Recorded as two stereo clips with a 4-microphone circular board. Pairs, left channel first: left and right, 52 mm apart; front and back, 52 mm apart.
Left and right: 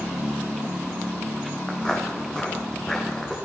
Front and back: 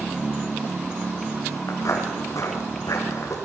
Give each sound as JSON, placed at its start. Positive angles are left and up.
{"t": 1.7, "sound": "footsteps", "azimuth_deg": 15, "distance_m": 7.5}